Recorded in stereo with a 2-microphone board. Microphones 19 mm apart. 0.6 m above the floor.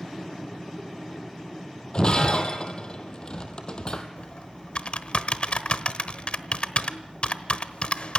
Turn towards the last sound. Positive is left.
turn(degrees=65)  # may be behind; listen again after turning